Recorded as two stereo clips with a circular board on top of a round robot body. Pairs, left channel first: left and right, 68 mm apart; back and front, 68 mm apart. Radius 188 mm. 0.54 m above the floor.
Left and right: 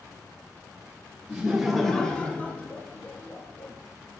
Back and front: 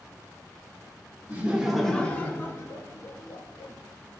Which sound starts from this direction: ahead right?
Laughter, at 1.3 s.